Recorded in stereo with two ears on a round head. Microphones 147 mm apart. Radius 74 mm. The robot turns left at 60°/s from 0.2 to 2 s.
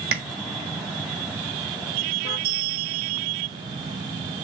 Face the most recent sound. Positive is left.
turn(degrees=-60)  # may be behind; listen again after turning